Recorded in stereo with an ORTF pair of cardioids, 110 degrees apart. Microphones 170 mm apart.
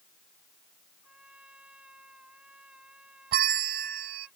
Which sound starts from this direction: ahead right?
A bell, at 3.3 s.